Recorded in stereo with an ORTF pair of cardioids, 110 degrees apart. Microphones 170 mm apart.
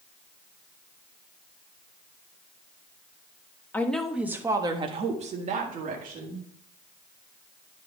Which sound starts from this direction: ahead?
A woman speaking, at 3.7 s.